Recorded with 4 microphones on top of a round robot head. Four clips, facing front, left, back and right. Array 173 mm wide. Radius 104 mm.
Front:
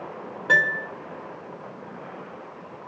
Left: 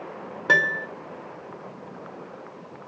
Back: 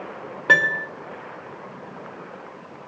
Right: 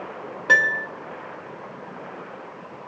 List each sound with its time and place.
0.5 s a piano: 155° left, 0.8 m